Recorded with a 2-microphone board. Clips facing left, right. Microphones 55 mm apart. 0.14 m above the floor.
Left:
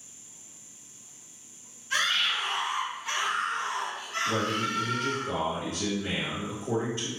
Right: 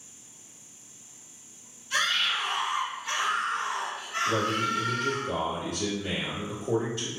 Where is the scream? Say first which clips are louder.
Even; 35° left (ahead or behind), 1.7 m; by 5.2 s 35° right (ahead or behind), 1.8 m.